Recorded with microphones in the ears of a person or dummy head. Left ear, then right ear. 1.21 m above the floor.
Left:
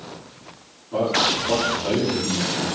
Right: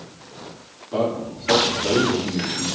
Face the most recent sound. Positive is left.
turn(degrees=-55)  # may be behind; listen again after turning